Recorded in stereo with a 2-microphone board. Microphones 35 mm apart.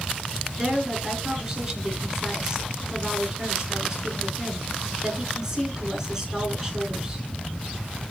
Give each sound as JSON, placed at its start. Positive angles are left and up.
{"t": 0.6, "sound": "a woman speaking", "side_deg": -15, "distance_m": 4.0}